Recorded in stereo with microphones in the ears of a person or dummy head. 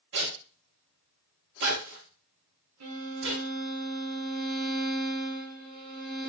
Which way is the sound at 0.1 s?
55° right (ahead or behind).